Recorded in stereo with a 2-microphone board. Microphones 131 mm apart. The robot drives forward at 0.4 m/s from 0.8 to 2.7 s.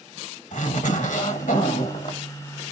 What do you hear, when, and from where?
0.5 s a zipper: 75° left (ahead or behind), 1.3 m; by 2.2 s 80° left, 1.3 m